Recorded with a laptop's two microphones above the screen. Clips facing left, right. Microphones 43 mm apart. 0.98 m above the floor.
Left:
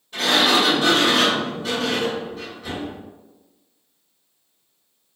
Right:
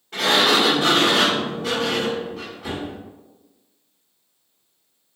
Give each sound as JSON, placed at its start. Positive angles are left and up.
{"t": 0.1, "sound": "a sliding door", "side_deg": -80, "distance_m": 1.5}